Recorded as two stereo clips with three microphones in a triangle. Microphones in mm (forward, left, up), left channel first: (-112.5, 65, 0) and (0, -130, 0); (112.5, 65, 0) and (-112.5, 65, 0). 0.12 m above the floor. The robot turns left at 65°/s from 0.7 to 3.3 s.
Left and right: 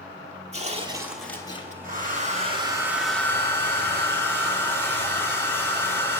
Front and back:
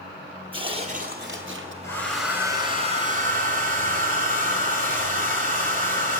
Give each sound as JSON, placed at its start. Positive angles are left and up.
{"t": 0.5, "sound": "tearing paper", "azimuth_deg": -120, "distance_m": 1.2}
{"t": 1.8, "sound": "a hair dryer", "azimuth_deg": -70, "distance_m": 2.0}